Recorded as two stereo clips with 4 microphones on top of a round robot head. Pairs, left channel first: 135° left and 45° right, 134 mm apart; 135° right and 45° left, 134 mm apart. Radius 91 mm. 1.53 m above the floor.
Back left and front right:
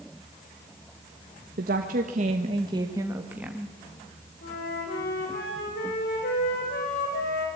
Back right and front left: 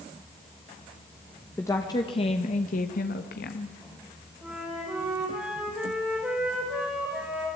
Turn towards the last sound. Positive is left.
turn(degrees=130)